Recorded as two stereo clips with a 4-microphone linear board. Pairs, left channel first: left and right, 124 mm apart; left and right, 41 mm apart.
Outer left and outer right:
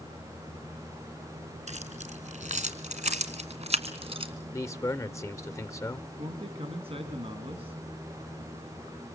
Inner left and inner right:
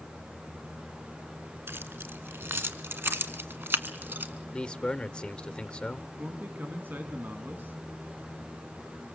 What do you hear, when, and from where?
1.7 s keys jangling: 70° right (ahead or behind), 2.5 m; by 4.3 s 50° right (ahead or behind), 2.5 m
4.5 s a man speaking: 25° left (ahead or behind), 0.8 m
6.2 s a man speaking: 55° right (ahead or behind), 3 m